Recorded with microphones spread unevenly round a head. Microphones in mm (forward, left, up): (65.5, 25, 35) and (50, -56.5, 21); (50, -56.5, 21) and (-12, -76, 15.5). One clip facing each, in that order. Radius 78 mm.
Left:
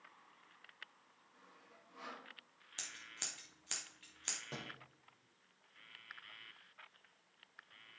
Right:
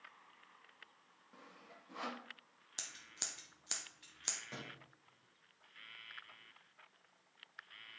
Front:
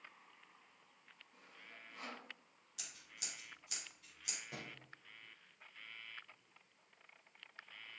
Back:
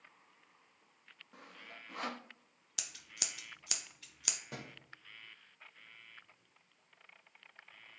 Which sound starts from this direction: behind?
Scissors, at 2.8 s.